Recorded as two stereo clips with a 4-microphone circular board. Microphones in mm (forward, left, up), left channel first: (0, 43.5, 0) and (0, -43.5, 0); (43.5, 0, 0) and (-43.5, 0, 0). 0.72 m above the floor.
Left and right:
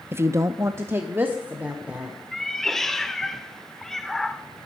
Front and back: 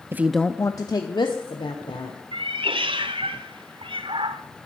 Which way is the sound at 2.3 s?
175° left.